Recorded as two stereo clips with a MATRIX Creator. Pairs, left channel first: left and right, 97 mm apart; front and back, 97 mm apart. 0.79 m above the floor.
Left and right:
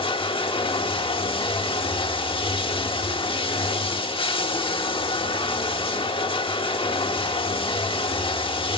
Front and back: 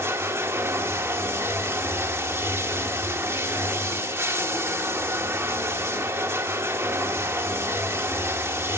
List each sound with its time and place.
0.0 s running water: 115° left, 1.1 m